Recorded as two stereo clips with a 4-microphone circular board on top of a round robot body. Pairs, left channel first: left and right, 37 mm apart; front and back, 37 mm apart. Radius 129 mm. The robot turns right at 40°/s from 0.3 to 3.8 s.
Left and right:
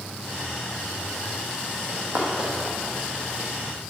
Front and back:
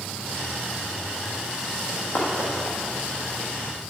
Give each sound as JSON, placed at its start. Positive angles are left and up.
{"t": 1.9, "sound": "running footsteps", "azimuth_deg": -40, "distance_m": 2.0}